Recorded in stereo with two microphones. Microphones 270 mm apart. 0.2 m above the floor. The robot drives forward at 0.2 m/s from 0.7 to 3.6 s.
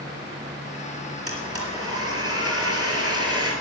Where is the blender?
55° right (ahead or behind), 4 m; by 3.5 s 60° right (ahead or behind), 3.5 m.